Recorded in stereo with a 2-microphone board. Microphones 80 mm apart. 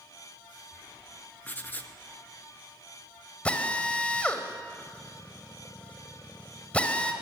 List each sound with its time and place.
1.4 s writing: 20° left (ahead or behind), 1.1 m
3.5 s a drill: 15° left (ahead or behind), 1.7 m